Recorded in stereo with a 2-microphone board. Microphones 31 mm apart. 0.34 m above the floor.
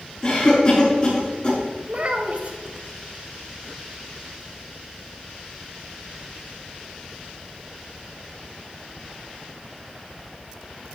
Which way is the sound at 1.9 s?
45° right (ahead or behind).